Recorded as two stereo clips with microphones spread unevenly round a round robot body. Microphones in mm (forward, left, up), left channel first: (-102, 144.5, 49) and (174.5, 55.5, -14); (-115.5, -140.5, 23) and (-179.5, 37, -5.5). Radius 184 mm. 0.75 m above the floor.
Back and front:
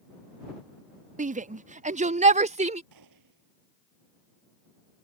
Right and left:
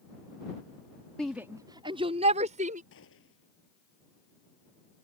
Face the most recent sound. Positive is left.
turn(degrees=-50)